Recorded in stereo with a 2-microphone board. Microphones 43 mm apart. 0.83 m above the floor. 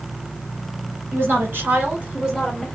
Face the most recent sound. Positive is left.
turn(degrees=10)  # may be behind; listen again after turning